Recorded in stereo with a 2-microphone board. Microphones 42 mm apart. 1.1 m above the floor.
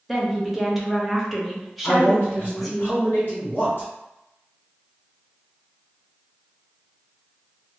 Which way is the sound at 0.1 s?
Centre (ahead or behind).